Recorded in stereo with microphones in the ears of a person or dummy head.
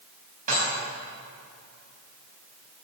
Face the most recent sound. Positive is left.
turn(degrees=-45)  # may be behind; listen again after turning